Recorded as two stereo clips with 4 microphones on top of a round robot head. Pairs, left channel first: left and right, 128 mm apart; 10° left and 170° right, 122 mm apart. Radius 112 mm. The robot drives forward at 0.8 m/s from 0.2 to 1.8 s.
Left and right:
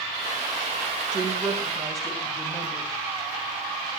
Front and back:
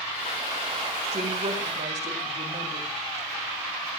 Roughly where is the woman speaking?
Behind right.